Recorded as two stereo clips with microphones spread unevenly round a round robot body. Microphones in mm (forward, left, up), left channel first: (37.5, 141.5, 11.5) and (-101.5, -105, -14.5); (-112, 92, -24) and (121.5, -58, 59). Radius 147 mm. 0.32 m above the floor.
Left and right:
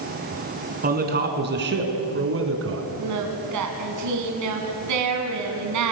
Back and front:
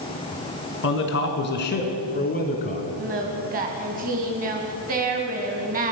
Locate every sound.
0.8 s a man speaking: 175° right, 4 m; by 2.9 s 155° right, 3.5 m
3.0 s singing: 100° right, 3 m